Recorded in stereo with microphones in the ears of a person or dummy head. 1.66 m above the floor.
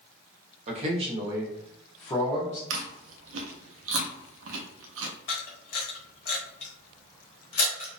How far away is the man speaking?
About 0.9 m.